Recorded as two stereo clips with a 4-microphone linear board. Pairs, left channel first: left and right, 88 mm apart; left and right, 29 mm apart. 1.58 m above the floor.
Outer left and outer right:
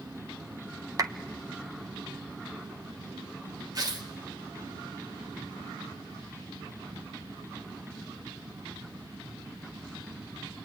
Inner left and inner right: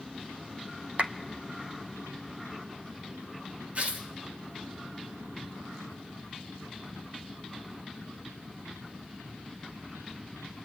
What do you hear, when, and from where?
1.0 s a clap: 40° right (ahead or behind), 1.2 m
3.8 s tearing paper: 45° right (ahead or behind), 2.5 m